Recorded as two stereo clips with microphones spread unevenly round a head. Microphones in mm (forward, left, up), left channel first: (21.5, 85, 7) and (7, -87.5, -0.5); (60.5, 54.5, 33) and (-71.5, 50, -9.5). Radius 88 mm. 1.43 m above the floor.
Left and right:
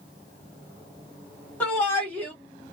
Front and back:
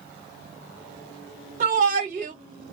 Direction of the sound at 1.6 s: 165° left.